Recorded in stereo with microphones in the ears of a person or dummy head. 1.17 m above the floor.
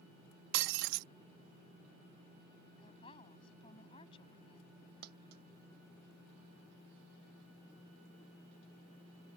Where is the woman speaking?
30° left (ahead or behind).